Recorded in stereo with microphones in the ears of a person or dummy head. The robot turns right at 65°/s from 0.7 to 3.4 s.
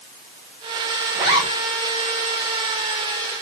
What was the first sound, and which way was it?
A zipper, 15° right (ahead or behind).